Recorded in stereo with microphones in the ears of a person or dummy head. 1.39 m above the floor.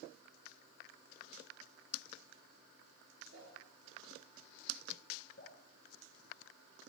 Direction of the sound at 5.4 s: 50° left (ahead or behind).